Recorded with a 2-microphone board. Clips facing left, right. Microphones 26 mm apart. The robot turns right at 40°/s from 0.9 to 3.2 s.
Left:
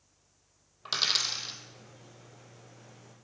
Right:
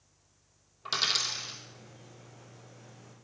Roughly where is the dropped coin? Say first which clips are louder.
Left 1 dB; centre.